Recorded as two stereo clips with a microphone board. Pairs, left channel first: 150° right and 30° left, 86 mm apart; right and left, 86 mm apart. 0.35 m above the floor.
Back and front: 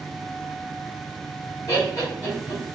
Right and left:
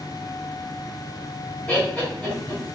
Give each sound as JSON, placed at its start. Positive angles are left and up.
{"t": 1.7, "sound": "laughter", "azimuth_deg": -155, "distance_m": 1.5}